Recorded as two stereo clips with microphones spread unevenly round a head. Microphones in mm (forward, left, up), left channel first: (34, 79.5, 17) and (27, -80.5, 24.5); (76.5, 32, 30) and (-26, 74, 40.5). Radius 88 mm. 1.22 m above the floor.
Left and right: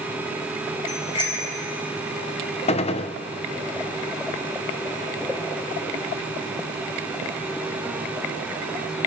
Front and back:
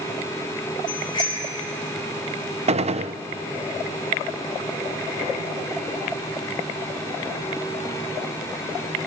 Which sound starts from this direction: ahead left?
A bicycle bell, at 0.9 s.